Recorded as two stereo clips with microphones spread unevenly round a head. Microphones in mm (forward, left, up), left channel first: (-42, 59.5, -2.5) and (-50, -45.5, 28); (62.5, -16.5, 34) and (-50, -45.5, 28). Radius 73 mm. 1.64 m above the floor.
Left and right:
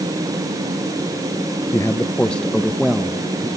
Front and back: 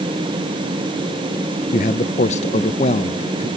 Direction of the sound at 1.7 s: 5° left.